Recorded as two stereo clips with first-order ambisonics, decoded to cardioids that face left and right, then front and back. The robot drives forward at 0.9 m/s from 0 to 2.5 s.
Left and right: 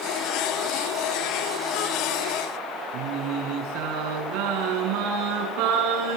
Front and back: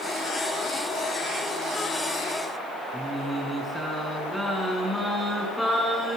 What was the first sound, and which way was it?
Singing, 90° right.